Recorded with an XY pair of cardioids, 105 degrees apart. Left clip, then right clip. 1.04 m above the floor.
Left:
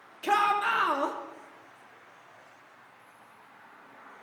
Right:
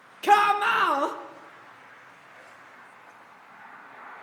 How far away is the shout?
About 0.5 m.